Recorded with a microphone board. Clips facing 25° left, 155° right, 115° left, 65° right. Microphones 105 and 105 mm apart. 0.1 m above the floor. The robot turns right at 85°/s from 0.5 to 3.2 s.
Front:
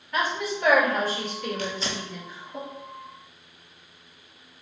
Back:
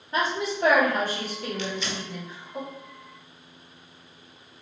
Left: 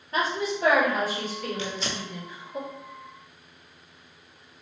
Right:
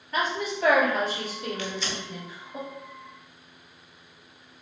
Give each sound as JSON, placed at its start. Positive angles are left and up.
{"t": 0.1, "sound": "a woman speaking", "azimuth_deg": 150, "distance_m": 1.9}
{"t": 1.6, "sound": "tearing paper", "azimuth_deg": 50, "distance_m": 0.6}